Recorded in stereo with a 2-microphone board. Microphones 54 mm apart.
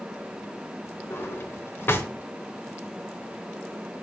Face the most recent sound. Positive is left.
turn(degrees=45)  # may be behind; listen again after turning